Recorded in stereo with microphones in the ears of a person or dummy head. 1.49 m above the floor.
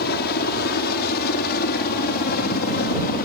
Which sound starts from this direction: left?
A helicopter, at 0.0 s.